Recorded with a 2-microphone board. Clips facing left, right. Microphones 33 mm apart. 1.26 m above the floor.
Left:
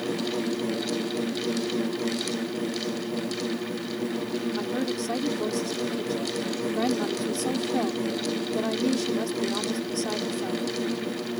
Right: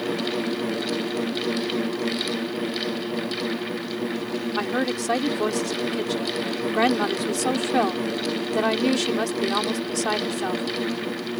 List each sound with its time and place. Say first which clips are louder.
4.5 s a woman speaking: right 4 dB; 80° right